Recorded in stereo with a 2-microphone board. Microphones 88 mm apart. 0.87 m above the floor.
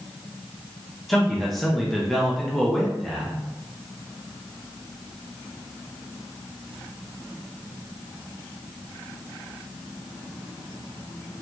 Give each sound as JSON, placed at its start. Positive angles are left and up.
{"t": 1.1, "sound": "a man speaking", "side_deg": 0, "distance_m": 0.7}